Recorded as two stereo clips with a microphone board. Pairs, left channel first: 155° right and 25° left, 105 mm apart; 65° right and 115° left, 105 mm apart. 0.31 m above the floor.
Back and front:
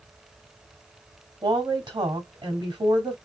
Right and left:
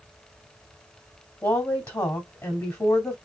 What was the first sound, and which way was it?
A woman speaking, 10° right.